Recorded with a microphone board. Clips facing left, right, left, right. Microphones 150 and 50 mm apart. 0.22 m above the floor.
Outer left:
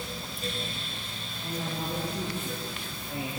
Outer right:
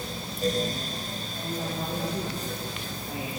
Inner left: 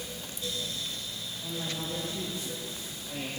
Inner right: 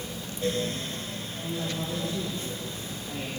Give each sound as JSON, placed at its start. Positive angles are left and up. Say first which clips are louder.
{"t": 1.4, "sound": "a woman speaking", "louder": "outer right 1 dB, inner right 3 dB", "side_deg": -80, "distance_m": 9.0}